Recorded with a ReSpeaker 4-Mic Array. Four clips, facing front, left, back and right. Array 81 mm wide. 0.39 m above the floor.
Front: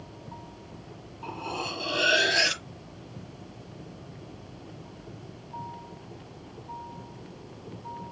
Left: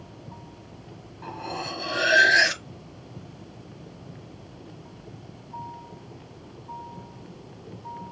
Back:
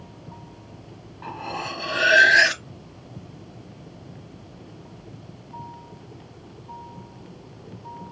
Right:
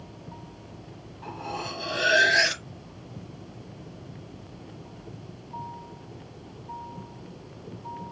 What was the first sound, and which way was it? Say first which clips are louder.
Cutlery clinking: left 1 dB, back 3 dB; 175° left.